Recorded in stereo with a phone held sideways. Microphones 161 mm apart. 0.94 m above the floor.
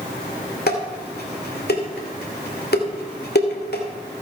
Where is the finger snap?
No finger snap in this recording.